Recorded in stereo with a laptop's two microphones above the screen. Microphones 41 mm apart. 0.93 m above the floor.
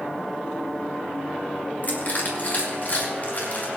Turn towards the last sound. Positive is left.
turn(degrees=45)  # may be behind; listen again after turning